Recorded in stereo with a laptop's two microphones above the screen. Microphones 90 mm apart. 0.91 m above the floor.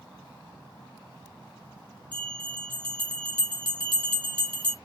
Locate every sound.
2.1 s a bell: 65° right (ahead or behind), 1.7 m